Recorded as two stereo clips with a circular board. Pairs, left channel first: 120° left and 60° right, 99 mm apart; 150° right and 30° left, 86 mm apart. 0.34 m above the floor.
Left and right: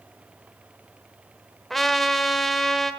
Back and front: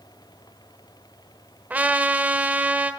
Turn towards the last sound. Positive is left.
turn(degrees=40)